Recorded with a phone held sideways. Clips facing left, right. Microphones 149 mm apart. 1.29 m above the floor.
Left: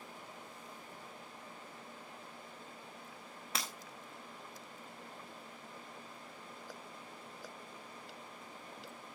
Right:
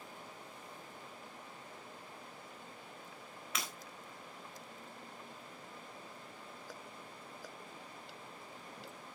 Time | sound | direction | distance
3.5 | breaking glass | 30° left (ahead or behind) | 3.5 m